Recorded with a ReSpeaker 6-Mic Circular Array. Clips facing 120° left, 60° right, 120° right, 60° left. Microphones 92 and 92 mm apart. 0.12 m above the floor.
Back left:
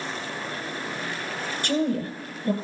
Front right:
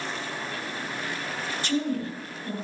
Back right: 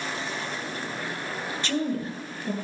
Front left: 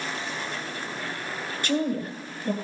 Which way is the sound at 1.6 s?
140° left.